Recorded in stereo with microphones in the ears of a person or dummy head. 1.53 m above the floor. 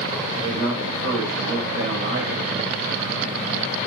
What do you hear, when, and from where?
0.3 s a man speaking: 70° right (ahead or behind), 1.4 m